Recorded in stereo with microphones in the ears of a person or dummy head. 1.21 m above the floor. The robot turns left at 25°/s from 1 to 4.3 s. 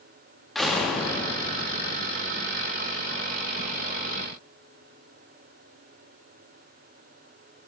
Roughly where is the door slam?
Centre.